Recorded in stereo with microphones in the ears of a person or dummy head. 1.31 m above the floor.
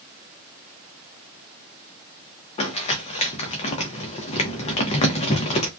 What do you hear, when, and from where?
2.6 s crumpling: 30° left (ahead or behind), 0.6 m